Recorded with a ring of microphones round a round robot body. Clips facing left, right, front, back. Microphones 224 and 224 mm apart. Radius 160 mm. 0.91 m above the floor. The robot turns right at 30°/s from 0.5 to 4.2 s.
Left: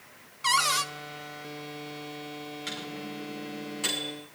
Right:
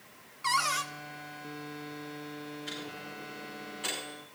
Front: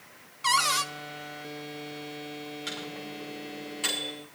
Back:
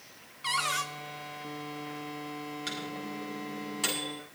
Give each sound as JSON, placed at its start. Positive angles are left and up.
{"t": 0.4, "sound": "a cupboard door", "azimuth_deg": 35, "distance_m": 1.0}
{"t": 2.7, "sound": "a microwave", "azimuth_deg": 110, "distance_m": 8.5}